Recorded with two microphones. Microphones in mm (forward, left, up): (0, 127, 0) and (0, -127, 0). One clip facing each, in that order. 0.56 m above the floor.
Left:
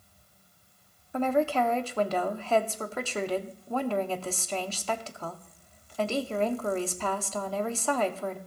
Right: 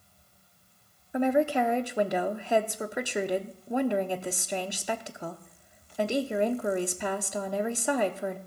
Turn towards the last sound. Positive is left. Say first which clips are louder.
# right 2 dB
turn(degrees=-15)  # may be behind; listen again after turning